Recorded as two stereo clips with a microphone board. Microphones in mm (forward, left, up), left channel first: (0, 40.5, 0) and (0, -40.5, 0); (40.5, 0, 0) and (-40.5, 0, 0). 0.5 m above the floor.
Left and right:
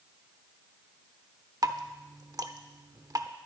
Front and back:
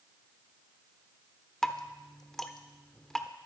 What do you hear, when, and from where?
1.6 s dripping: 80° right, 0.9 m